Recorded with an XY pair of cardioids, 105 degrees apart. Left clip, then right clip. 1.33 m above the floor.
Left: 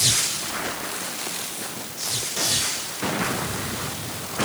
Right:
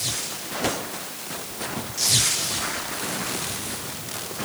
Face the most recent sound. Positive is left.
No sound to turn to.